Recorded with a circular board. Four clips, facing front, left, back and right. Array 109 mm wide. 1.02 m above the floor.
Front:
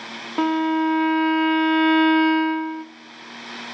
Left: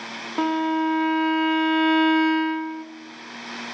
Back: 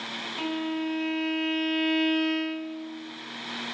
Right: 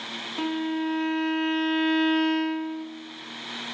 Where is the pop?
I don't hear a pop.